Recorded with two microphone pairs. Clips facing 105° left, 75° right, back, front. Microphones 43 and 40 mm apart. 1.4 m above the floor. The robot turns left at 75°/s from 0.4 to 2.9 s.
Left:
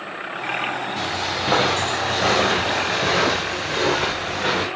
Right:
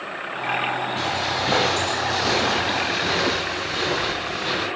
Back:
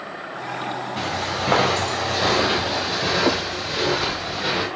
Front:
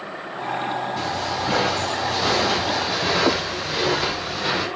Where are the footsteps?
145° right, 7.5 m; by 4.7 s 90° left, 4.5 m.